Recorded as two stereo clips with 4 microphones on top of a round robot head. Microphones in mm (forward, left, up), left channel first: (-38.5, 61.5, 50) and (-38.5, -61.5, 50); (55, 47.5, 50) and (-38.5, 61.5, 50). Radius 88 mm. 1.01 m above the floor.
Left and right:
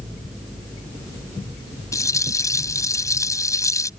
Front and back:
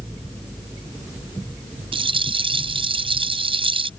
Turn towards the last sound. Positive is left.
turn(degrees=150)